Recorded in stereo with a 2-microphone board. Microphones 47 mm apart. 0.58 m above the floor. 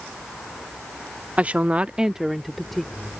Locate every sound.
1.4 s a woman speaking: 30° right (ahead or behind); by 2.9 s 5° left (ahead or behind)